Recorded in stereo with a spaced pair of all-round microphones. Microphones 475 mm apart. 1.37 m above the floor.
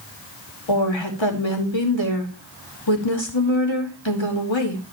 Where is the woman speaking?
65° left (ahead or behind), 2.5 m.